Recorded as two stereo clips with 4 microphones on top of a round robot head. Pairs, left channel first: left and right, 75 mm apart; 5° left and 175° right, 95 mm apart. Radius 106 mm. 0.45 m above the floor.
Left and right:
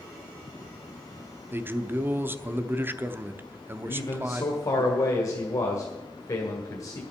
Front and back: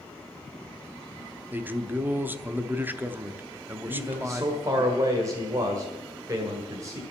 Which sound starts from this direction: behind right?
A man speaking, at 1.5 s.